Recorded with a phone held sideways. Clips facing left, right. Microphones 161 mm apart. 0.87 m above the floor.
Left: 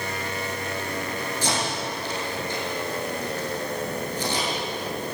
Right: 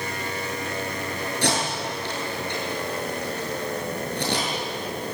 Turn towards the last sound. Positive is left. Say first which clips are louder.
# right 3 dB
turn(degrees=-65)  # may be behind; listen again after turning